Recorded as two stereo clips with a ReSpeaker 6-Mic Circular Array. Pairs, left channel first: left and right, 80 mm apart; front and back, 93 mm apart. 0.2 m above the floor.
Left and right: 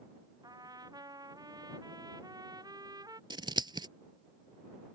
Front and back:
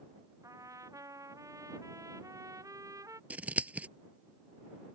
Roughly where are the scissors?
Right.